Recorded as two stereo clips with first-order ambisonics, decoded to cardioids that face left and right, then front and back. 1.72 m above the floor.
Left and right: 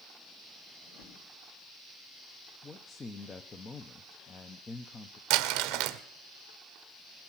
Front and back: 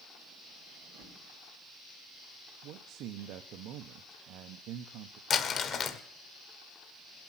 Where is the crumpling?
60° right, 1.2 m.